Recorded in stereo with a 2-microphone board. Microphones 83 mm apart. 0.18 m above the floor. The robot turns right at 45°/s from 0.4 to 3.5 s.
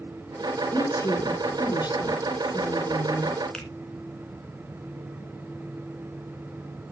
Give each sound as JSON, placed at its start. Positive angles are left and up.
{"t": 0.7, "sound": "a woman speaking", "azimuth_deg": 35, "distance_m": 2.5}
{"t": 3.5, "sound": "a finger snap", "side_deg": 10, "distance_m": 2.5}